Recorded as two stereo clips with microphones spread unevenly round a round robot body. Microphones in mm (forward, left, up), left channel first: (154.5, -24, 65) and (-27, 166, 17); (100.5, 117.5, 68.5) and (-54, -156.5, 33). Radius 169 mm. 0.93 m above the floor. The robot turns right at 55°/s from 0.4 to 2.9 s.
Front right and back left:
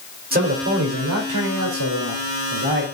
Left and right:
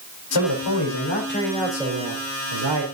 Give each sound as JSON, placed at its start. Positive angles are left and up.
{"t": 0.3, "sound": "a man speaking", "azimuth_deg": 80, "distance_m": 3.5}